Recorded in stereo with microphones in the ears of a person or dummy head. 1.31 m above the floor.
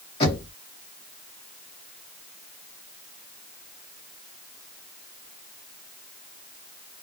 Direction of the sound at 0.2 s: 25° left (ahead or behind).